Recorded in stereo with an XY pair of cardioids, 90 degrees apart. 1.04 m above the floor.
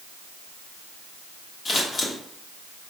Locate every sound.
1.6 s scissors: 50° left, 1.4 m